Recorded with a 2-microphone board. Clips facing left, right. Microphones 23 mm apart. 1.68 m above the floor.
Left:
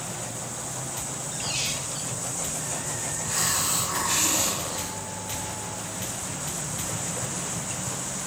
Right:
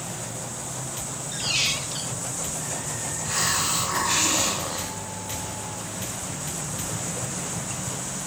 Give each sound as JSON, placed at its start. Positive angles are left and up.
{"t": 1.3, "sound": "a squeak", "side_deg": -25, "distance_m": 0.8}
{"t": 3.2, "sound": "a hiss", "side_deg": -15, "distance_m": 2.0}